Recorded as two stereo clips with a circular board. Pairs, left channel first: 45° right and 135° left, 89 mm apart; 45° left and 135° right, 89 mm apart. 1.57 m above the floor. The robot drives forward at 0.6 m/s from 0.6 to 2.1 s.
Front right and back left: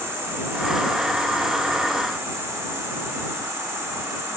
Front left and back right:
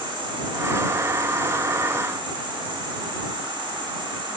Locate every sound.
0.0 s an insect: 160° right, 6 m; by 4.4 s 165° right, 7 m